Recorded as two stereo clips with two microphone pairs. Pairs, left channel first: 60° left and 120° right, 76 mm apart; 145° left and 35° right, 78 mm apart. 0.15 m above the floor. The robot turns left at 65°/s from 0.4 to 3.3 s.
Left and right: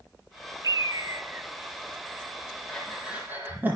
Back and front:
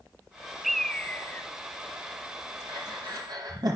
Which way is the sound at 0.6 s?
125° right.